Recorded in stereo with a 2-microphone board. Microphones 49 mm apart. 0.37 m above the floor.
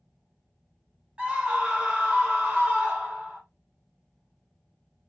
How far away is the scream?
About 1.4 m.